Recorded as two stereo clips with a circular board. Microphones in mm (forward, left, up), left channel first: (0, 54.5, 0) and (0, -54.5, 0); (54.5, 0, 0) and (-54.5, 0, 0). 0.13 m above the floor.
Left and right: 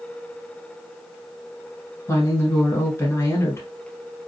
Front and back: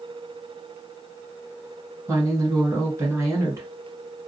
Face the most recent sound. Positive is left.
turn(degrees=140)